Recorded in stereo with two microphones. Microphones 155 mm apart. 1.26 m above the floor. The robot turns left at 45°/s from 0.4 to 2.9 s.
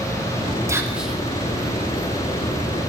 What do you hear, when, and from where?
0.7 s whispering: 20° right (ahead or behind), 1.0 m; by 1.2 s 5° left (ahead or behind), 1.0 m